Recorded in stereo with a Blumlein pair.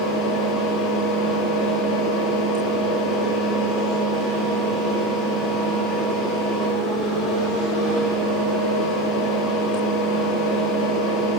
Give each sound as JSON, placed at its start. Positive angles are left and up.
{"t": 0.0, "sound": "a fan", "azimuth_deg": 25, "distance_m": 2.5}